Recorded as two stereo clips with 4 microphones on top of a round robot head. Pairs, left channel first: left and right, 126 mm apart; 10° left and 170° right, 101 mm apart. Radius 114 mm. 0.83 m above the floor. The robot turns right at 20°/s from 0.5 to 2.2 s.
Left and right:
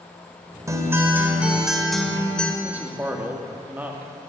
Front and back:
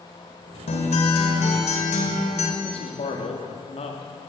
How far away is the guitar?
About 1.5 m.